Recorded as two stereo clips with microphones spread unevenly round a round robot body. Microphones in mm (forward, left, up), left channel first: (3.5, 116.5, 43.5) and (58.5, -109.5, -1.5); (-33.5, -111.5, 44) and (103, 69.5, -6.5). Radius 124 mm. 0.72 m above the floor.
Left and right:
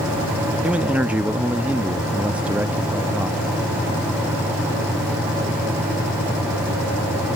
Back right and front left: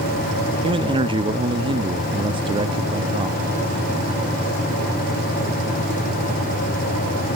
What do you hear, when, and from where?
0.6 s a man speaking: straight ahead